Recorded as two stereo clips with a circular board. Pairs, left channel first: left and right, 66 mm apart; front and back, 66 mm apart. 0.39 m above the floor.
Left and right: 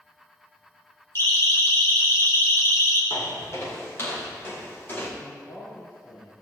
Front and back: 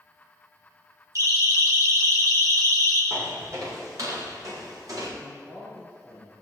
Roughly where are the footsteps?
Behind left.